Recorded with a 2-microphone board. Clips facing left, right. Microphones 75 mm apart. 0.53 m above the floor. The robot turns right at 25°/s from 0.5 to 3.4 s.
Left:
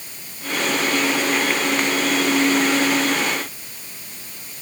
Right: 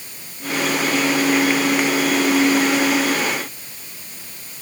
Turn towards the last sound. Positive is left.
No sound to turn to.